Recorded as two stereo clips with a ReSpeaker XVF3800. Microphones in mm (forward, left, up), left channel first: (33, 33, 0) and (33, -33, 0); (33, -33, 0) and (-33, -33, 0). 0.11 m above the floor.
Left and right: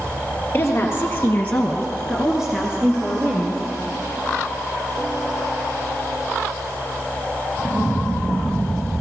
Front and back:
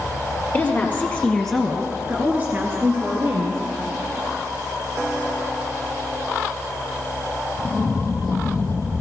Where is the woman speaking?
50° left, 2 m; by 3.6 s 150° right, 3 m.